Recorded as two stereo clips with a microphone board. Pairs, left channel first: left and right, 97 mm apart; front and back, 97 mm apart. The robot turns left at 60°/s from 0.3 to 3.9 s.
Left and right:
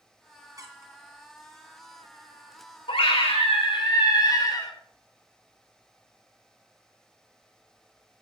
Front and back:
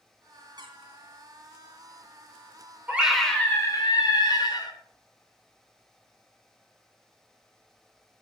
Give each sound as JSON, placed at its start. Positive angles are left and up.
{"t": 0.6, "sound": "a squeak", "azimuth_deg": -140, "distance_m": 2.0}
{"t": 2.9, "sound": "a scream", "azimuth_deg": 105, "distance_m": 3.0}